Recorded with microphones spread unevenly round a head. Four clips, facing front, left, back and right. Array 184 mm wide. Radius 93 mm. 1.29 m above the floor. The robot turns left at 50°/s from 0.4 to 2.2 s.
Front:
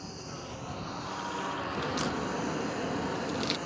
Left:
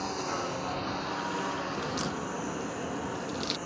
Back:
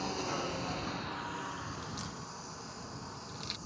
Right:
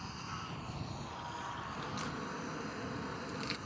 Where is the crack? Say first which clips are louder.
Left 8 dB, front 11 dB; 45° left; by 3.6 s 20° left.